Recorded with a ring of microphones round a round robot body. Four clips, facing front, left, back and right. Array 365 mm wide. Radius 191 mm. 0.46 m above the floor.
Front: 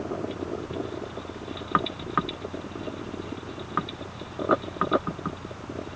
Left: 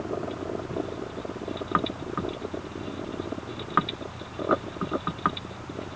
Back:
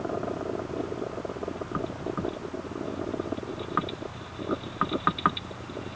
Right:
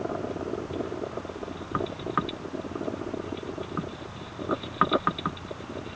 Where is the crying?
I don't hear crying.